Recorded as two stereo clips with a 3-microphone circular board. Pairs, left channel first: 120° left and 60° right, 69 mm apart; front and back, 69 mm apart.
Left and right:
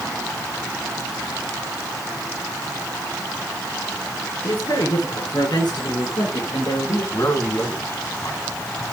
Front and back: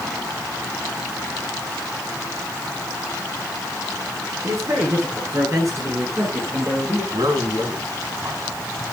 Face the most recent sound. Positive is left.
turn(degrees=155)